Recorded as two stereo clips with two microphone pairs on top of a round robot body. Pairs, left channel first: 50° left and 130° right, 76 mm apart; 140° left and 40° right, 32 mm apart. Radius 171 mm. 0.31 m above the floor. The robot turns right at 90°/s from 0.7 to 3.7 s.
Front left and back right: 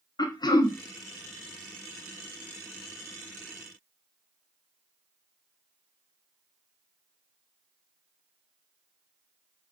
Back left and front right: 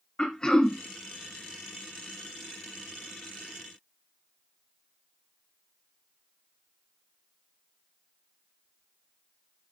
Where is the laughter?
No laughter in this recording.